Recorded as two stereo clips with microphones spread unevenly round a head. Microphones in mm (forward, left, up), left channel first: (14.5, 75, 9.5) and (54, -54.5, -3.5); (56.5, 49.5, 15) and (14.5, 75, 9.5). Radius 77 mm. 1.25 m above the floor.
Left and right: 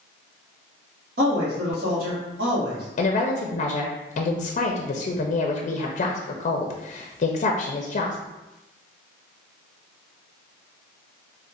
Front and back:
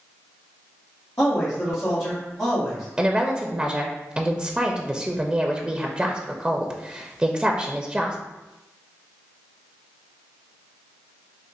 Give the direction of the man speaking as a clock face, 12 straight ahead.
3 o'clock.